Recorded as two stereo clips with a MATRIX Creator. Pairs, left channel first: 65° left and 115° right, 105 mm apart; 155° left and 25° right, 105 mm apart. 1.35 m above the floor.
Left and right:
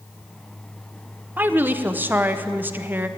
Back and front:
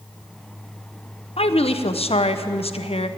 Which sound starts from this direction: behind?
A woman speaking, at 1.4 s.